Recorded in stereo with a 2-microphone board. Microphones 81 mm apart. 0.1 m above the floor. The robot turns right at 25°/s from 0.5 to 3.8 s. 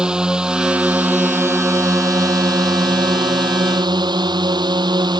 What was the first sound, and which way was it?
A drone, 170° right.